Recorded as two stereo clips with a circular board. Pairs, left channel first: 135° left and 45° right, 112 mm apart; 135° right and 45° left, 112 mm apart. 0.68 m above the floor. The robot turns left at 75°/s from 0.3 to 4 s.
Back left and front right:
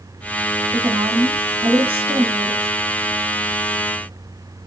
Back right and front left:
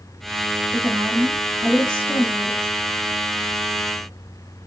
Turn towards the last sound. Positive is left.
turn(degrees=145)